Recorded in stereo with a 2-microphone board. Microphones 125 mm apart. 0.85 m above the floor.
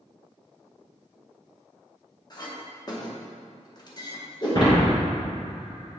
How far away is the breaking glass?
About 1.9 m.